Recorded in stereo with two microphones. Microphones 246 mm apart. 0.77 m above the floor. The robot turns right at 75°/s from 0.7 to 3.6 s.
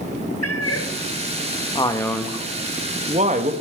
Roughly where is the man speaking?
Behind left.